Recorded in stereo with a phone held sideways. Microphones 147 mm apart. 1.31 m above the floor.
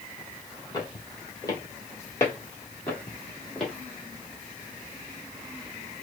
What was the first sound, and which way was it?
Footsteps, 30° left (ahead or behind).